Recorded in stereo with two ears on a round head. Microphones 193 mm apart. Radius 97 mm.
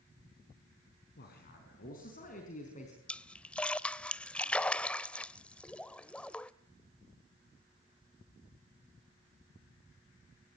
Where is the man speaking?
50° left (ahead or behind), 4 m; by 3.0 s 35° left (ahead or behind), 4 m.